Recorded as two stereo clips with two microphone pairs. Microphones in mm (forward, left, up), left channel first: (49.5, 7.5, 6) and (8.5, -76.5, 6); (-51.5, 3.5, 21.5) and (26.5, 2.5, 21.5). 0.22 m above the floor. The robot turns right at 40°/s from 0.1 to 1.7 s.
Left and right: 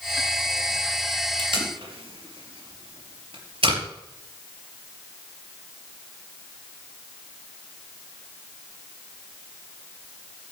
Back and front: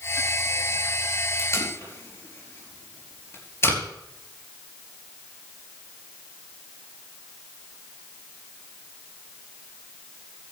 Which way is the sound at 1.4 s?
135° right.